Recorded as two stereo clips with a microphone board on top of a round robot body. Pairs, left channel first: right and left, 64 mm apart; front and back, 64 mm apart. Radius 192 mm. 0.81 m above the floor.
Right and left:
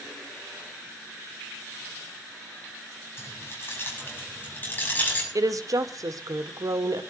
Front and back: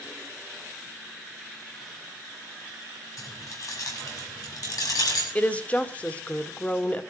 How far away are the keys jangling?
About 6.5 m.